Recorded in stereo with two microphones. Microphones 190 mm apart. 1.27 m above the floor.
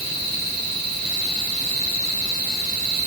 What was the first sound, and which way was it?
Only background noise.